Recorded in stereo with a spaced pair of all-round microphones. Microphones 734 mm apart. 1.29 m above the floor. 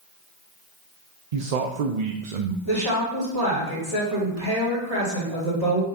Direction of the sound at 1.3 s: 65° right (ahead or behind).